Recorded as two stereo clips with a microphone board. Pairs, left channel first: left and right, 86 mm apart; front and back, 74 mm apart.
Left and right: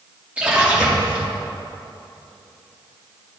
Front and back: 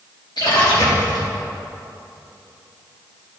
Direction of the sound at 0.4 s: 15° right.